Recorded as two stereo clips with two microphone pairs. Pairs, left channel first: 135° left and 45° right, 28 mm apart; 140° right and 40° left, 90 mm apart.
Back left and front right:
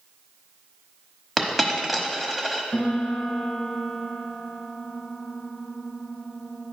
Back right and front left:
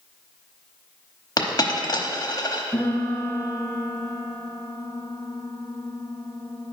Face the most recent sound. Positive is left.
turn(degrees=155)